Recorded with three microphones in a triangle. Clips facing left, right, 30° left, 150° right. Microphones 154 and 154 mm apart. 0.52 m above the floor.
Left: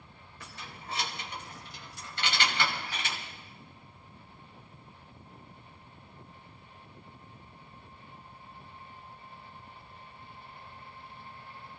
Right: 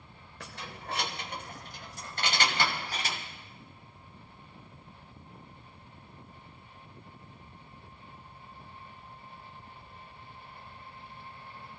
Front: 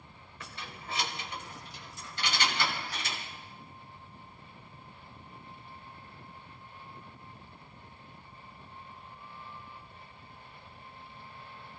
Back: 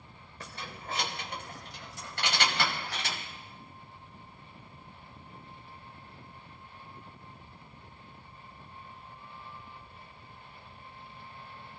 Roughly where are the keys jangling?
Right.